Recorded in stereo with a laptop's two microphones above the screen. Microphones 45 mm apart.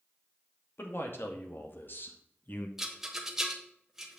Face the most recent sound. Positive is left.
turn(degrees=-10)  # may be behind; listen again after turning